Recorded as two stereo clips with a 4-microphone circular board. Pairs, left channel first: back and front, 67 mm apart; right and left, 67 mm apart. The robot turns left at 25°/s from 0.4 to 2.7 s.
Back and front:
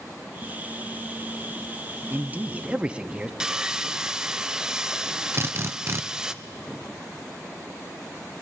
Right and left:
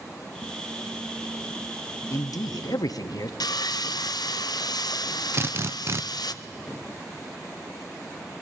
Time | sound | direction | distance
2.1 | a man speaking | 55° right | 0.9 m
3.4 | sawing | 80° right | 0.6 m
5.3 | a drill | 45° left | 0.5 m